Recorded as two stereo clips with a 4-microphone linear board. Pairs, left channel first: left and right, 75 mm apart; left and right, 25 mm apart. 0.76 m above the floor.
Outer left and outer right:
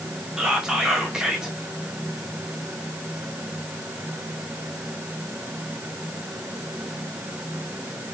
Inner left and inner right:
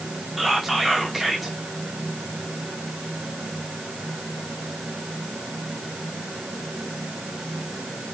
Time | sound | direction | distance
0.4 | whispering | 5° right (ahead or behind) | 0.6 m